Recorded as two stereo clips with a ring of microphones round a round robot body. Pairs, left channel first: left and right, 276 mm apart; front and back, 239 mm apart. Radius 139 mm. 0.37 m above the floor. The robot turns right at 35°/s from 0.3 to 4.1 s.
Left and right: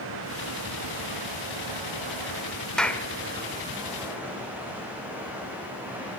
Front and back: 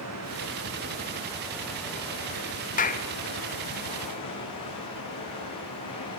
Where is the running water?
140° right, 7 m; by 6.2 s 5° right, 7 m.